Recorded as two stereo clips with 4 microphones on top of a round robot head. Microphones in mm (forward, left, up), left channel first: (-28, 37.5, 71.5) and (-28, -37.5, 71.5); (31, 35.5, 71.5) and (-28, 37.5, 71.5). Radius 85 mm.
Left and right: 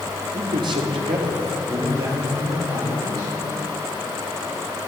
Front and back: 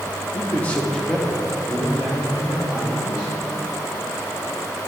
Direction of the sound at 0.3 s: 55° right.